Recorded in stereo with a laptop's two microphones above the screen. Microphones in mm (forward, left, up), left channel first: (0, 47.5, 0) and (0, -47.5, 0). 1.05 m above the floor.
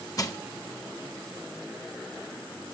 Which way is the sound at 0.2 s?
35° left (ahead or behind).